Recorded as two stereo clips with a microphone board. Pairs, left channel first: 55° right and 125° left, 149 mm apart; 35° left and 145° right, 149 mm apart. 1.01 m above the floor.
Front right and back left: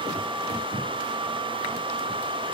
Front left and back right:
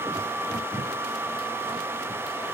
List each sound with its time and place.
Only background noise.